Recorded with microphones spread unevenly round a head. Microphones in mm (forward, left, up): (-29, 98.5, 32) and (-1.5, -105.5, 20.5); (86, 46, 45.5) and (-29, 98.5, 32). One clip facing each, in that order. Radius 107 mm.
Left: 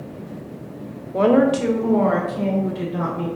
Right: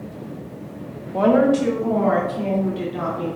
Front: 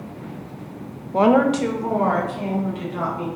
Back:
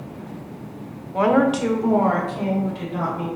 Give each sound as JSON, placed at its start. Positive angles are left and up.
{"t": 1.1, "sound": "a woman speaking", "azimuth_deg": 25, "distance_m": 0.6}